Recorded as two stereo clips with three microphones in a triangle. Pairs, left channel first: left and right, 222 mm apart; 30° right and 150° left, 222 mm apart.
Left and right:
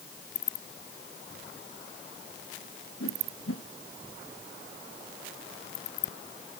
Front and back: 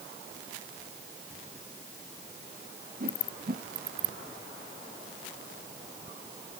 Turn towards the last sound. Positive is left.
turn(degrees=100)